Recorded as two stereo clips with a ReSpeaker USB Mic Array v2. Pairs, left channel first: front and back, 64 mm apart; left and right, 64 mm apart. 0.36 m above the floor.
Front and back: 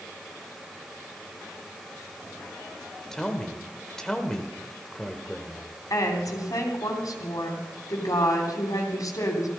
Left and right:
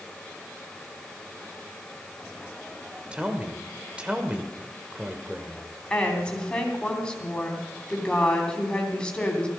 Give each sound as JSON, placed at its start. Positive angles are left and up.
{"t": 3.1, "sound": "a man speaking", "azimuth_deg": -65, "distance_m": 1.4}
{"t": 5.9, "sound": "a woman speaking", "azimuth_deg": 15, "distance_m": 3.0}